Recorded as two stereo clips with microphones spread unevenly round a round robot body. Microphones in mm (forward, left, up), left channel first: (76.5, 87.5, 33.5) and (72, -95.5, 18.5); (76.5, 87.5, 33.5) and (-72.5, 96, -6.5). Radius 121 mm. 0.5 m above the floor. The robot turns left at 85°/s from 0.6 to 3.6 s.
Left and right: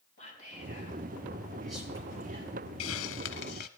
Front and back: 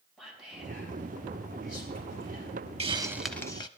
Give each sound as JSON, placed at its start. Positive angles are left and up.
{"t": 0.2, "sound": "whispering", "azimuth_deg": 95, "distance_m": 5.0}
{"t": 2.8, "sound": "a hiss", "azimuth_deg": 125, "distance_m": 0.7}